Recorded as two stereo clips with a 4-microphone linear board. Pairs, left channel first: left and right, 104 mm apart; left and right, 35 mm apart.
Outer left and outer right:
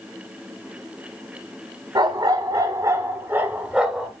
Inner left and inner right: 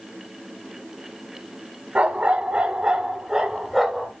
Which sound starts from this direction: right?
A dog barking, at 1.9 s.